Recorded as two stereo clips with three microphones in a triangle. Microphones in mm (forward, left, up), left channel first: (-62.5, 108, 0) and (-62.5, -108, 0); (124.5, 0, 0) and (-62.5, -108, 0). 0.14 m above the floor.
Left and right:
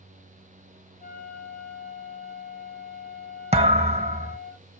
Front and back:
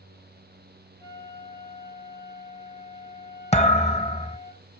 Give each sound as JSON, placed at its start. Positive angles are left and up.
{"t": 1.0, "sound": "a flute", "azimuth_deg": 135, "distance_m": 4.0}
{"t": 3.5, "sound": "a thud", "azimuth_deg": -30, "distance_m": 1.4}